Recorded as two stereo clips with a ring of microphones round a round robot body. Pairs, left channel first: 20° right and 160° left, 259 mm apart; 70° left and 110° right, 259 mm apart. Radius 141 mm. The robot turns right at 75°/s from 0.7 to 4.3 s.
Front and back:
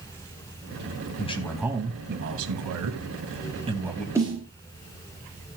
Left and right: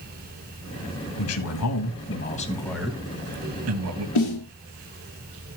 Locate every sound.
1.2 s a man speaking: 40° left, 2.5 m; by 4.0 s 105° right, 2.5 m
4.2 s a snare drum: 75° left, 4.5 m; by 4.5 s 90° left, 4.5 m